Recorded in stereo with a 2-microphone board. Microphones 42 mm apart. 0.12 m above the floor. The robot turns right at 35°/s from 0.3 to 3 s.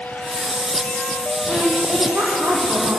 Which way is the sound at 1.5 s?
150° right.